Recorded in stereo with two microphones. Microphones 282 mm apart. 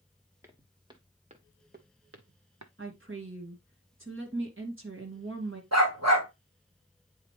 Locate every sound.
0.4 s footsteps: 10° right (ahead or behind), 1.6 m; by 2.7 s 75° right (ahead or behind), 0.7 m
2.8 s a woman speaking: 45° right (ahead or behind), 2.5 m
5.7 s a dog barking: 65° right (ahead or behind), 3 m